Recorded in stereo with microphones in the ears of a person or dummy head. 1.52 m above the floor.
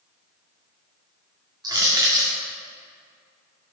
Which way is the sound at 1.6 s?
20° right (ahead or behind).